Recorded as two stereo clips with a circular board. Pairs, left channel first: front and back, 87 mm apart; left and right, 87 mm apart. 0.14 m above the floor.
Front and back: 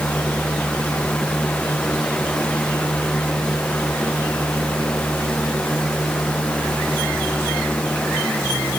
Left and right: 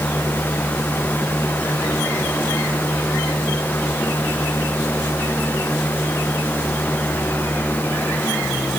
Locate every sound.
Only background noise.